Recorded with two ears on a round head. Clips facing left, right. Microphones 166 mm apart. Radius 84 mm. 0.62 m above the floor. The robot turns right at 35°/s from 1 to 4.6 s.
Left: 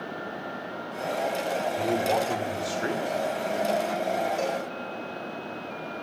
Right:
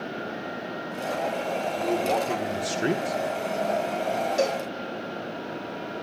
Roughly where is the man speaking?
Behind.